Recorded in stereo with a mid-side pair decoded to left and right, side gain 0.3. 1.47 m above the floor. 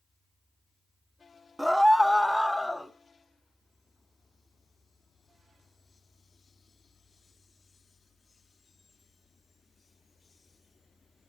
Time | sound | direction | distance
1.6 | a scream | straight ahead | 0.8 m